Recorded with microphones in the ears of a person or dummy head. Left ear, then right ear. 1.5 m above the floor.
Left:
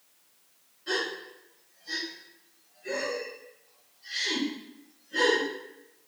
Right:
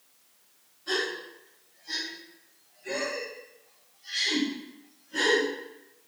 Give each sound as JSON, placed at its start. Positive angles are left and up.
{"t": 0.9, "sound": "a gasp", "side_deg": 20, "distance_m": 1.3}